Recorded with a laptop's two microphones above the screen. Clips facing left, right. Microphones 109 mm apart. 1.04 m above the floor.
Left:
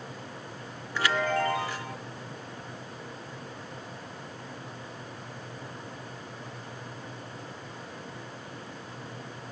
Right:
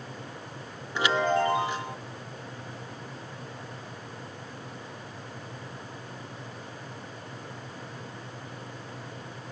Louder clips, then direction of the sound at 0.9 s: Right 3 dB; 20° right (ahead or behind).